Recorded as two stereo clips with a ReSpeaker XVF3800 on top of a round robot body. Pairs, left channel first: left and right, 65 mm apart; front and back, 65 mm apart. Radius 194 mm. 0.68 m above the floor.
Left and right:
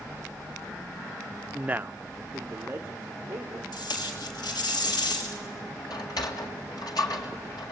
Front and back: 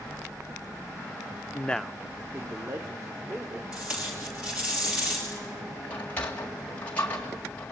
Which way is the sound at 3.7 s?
105° left.